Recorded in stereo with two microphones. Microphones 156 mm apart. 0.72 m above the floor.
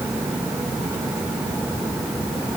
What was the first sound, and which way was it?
Only background noise.